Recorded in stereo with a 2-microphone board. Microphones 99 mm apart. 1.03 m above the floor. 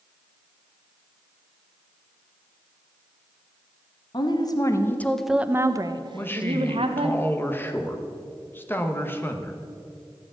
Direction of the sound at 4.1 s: 50° left (ahead or behind).